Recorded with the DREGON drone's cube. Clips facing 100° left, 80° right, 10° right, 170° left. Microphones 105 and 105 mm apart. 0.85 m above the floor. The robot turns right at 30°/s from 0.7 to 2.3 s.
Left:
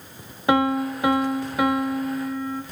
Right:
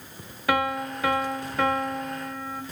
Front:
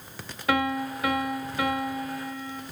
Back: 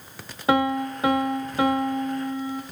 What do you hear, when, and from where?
0.5 s a piano: 145° left, 0.5 m; by 2.6 s 165° right, 0.5 m